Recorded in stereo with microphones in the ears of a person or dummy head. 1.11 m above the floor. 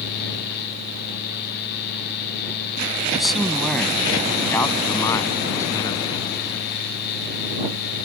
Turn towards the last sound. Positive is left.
turn(degrees=25)  # may be behind; listen again after turning